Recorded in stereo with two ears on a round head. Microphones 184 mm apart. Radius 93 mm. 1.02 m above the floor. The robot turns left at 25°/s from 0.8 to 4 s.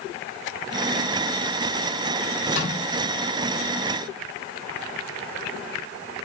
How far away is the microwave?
About 5 m.